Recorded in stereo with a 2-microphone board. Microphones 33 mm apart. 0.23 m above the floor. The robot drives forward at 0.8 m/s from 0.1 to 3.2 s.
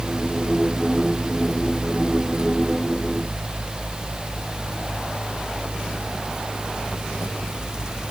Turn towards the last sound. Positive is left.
No sound to turn to.